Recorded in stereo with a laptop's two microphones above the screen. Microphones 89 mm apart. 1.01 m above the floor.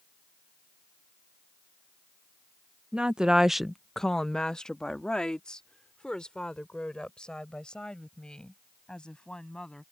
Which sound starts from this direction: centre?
A woman speaking, at 2.9 s.